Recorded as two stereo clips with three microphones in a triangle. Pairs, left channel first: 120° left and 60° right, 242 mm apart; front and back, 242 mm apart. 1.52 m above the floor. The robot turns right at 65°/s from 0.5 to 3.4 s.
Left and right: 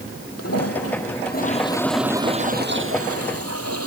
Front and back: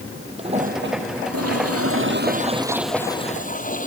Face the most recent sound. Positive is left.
turn(degrees=-55)